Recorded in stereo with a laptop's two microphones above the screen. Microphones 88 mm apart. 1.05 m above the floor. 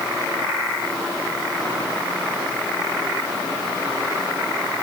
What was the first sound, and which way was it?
Only background noise.